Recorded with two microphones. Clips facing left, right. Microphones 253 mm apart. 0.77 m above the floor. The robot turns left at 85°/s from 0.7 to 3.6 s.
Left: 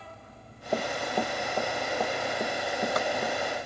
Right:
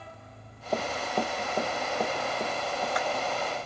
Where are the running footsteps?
5° left (ahead or behind); by 3.4 s 70° left (ahead or behind).